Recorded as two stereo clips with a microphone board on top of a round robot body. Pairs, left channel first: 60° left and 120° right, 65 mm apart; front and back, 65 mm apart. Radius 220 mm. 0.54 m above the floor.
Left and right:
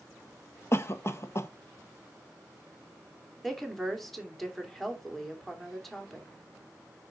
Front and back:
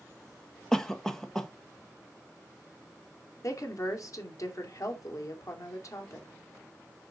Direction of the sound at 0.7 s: 80° left.